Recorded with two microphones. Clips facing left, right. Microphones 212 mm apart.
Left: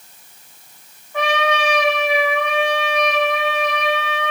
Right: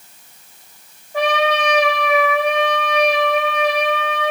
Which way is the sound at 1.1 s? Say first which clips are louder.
Right 2 dB; 35° right (ahead or behind).